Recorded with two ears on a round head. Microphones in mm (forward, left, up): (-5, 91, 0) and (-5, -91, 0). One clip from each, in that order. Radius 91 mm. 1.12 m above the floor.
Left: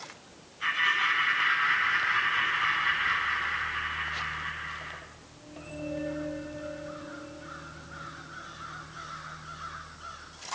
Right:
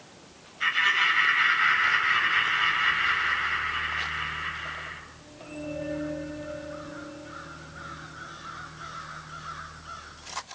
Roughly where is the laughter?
Right.